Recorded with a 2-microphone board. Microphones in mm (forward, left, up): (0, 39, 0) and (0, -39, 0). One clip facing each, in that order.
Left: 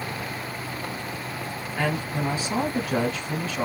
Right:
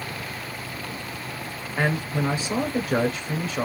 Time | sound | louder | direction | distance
1.8 | a man speaking | right 2 dB | 40° right (ahead or behind) | 1.4 m